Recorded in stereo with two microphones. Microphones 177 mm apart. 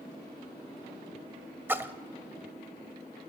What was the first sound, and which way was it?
A splash, 10° right (ahead or behind).